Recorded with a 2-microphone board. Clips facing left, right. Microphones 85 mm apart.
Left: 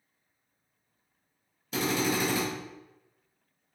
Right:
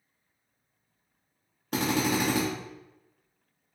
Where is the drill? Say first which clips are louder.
Right 2 dB; 55° right (ahead or behind), 1.1 m.